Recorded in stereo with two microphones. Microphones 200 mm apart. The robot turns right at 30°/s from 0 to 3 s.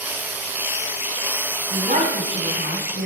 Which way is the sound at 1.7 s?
140° right.